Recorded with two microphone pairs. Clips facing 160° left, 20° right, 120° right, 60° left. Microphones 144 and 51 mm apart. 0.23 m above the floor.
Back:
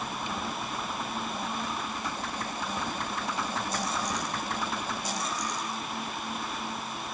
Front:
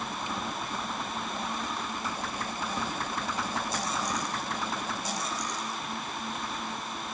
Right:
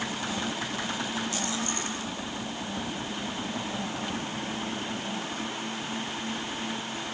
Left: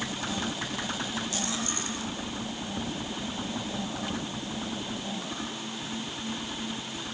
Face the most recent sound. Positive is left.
No sound to turn to.